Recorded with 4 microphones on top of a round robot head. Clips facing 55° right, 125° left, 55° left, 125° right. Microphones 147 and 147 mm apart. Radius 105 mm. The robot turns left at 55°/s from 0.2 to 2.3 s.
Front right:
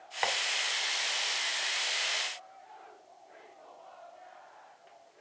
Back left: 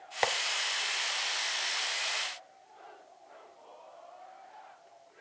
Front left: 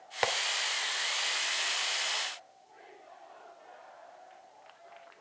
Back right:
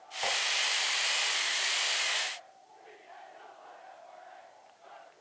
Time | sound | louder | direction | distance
0.2 | tapping | back left 3 dB, front left 4 dB | 75° left | 1.7 m